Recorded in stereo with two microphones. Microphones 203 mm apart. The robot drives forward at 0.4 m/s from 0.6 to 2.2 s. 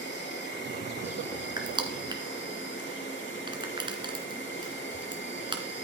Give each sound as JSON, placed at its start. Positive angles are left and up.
{"t": 0.0, "sound": "an insect", "side_deg": 60, "distance_m": 4.0}
{"t": 1.6, "sound": "crushing", "side_deg": -20, "distance_m": 2.5}